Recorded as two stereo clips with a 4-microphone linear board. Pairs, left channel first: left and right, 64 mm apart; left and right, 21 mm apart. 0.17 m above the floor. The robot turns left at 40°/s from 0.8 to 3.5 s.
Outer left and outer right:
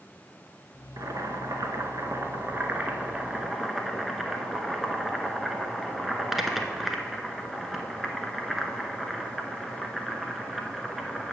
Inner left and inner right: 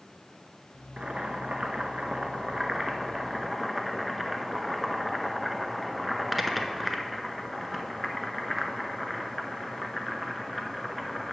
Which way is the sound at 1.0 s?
80° right.